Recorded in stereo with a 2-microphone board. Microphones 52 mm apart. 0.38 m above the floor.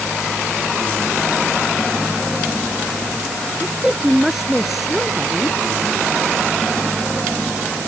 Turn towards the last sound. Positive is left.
turn(degrees=0)  # may be behind; listen again after turning